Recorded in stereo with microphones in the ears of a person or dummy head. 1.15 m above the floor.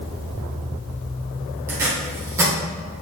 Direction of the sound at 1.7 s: 15° right (ahead or behind).